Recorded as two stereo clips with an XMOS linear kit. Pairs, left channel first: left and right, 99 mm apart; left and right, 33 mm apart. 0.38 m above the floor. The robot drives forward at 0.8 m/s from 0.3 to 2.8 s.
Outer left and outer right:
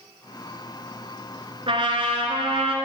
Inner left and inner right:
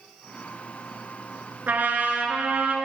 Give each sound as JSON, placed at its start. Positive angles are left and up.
{"t": 1.7, "sound": "a trumpet", "side_deg": -65, "distance_m": 1.3}